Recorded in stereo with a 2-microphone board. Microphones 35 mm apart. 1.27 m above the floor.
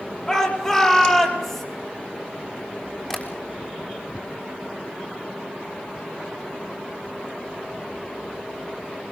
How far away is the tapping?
About 6 m.